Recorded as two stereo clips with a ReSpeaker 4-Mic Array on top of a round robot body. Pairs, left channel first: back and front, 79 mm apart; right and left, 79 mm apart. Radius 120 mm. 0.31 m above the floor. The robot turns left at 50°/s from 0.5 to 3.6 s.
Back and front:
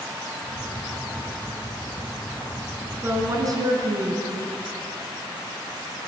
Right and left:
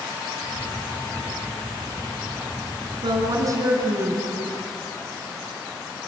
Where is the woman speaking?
65° left, 4.5 m; by 4.5 s 35° left, 4.5 m.